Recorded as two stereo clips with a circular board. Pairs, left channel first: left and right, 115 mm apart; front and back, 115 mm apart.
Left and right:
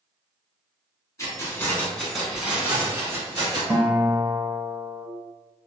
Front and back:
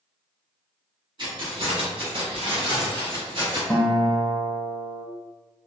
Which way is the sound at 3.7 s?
60° right.